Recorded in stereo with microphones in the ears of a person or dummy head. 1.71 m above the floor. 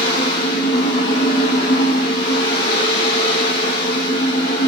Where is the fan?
35° left (ahead or behind), 1.4 m.